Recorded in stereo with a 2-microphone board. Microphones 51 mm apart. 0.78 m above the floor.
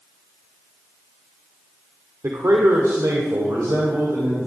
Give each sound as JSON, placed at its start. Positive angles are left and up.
{"t": 2.2, "sound": "a man speaking", "side_deg": -70, "distance_m": 2.0}